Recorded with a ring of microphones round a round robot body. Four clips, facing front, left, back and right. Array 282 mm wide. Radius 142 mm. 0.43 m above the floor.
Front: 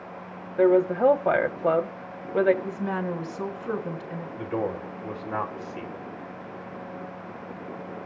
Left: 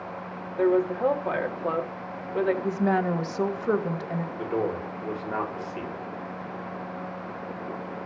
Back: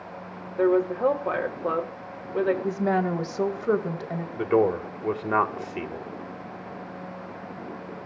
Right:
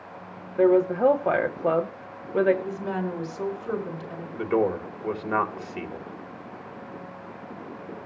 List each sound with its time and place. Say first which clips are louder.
0.6 s a woman speaking: right 3 dB, front 2 dB; 40° right, 1.1 m
2.6 s a woman speaking: left 5 dB, back 5 dB; 135° left, 2.5 m
4.4 s a man speaking: right 6 dB, back 8 dB; 155° right, 2 m